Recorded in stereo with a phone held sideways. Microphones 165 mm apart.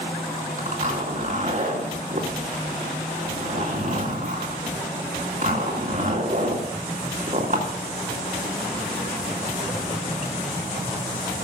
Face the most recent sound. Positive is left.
turn(degrees=-50)  # may be behind; listen again after turning